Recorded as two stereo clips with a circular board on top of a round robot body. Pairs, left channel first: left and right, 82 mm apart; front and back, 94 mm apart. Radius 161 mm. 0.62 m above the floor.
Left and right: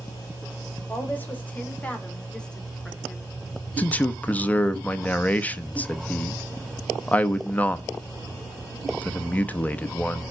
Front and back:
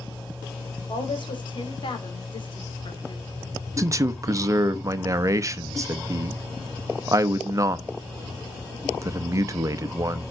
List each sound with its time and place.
0.9 s a woman speaking: 25° left, 4 m; by 3.3 s 5° right, 2 m
3.8 s a man speaking: 150° left, 1.0 m